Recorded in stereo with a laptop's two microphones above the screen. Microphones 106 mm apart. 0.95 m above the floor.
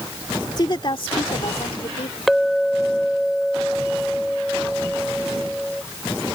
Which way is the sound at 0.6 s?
40° left (ahead or behind).